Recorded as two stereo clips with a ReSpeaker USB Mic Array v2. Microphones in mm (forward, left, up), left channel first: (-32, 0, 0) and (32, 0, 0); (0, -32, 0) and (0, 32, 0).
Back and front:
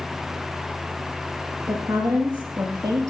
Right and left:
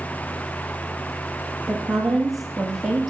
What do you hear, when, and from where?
1.7 s a woman speaking: straight ahead, 4.5 m; by 3.1 s 5° left, 5 m